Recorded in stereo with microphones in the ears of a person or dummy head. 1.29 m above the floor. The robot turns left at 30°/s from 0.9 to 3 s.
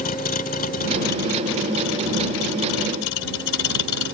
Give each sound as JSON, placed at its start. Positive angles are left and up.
{"t": 0.0, "sound": "a vehicle", "azimuth_deg": 135}